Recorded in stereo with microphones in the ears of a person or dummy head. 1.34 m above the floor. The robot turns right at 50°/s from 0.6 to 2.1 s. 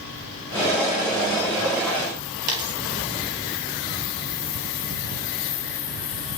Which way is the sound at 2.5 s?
20° right (ahead or behind).